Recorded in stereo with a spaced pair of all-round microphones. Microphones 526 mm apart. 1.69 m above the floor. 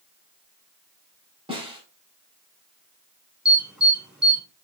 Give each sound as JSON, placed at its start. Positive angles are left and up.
{"t": 1.5, "sound": "a snare drum", "side_deg": -10, "distance_m": 6.0}
{"t": 3.5, "sound": "an alarm", "side_deg": 0, "distance_m": 7.0}